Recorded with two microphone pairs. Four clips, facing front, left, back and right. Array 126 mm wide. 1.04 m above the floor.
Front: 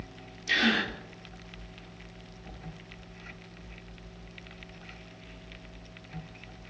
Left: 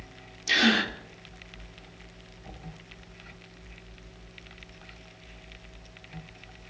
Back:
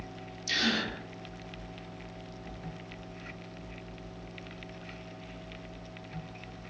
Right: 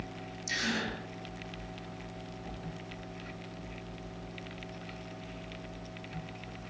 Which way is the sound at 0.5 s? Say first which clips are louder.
Left 10 dB, front 4 dB; 65° left.